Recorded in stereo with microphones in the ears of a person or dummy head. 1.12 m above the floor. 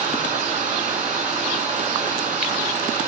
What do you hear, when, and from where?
0.0 s running water: 40° right (ahead or behind), 3.5 m